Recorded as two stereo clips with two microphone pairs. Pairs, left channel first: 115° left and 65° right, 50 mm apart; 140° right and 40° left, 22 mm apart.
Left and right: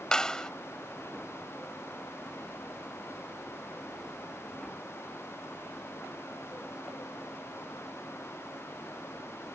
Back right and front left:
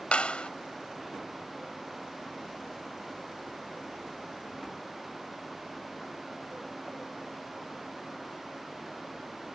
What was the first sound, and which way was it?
A clap, 170° right.